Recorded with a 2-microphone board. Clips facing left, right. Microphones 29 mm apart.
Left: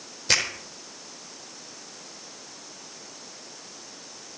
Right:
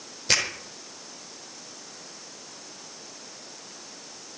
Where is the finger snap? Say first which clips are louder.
Left 1 dB; 5° right (ahead or behind), 4.5 m.